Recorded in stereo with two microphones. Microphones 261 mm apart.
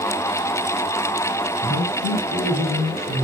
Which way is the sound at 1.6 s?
65° right (ahead or behind).